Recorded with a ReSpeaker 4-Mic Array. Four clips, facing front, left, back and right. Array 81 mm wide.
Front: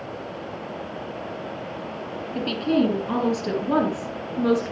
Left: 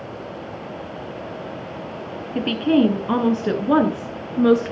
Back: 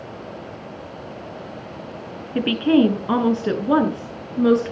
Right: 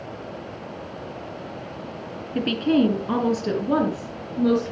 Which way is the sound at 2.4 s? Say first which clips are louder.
Left 2 dB, back 5 dB; 175° left.